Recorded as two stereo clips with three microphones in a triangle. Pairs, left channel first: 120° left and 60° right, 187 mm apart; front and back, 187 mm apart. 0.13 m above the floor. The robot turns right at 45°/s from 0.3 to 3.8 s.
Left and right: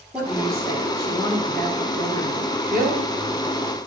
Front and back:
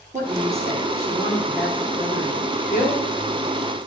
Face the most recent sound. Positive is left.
turn(degrees=15)